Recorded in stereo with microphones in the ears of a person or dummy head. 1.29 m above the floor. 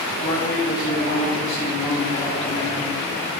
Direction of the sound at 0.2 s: 50° left (ahead or behind).